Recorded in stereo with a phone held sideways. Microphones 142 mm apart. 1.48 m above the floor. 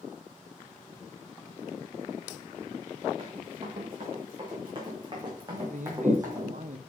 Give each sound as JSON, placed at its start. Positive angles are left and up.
{"t": 3.2, "sound": "running footsteps", "side_deg": -45, "distance_m": 5.5}
{"t": 5.5, "sound": "a man speaking", "side_deg": -60, "distance_m": 1.1}